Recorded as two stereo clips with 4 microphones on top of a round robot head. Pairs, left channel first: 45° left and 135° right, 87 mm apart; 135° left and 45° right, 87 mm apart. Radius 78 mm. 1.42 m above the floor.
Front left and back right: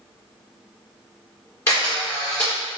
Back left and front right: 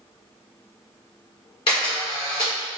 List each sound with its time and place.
1.7 s a camera shutter: 105° left, 1.5 m